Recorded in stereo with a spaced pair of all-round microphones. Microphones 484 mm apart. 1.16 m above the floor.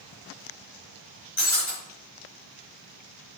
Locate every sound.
1.4 s breaking glass: 75° left (ahead or behind), 5 m